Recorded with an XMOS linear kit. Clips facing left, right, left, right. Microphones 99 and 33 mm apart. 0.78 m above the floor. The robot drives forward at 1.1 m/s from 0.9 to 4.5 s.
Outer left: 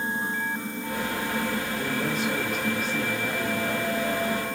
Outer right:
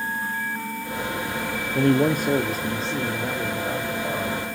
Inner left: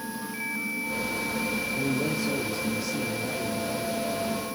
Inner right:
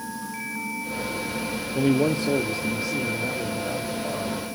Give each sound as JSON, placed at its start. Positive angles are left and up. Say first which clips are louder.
{"t": 1.8, "sound": "a man speaking", "louder": "outer right 9 dB, inner right 10 dB", "side_deg": -65, "distance_m": 0.8}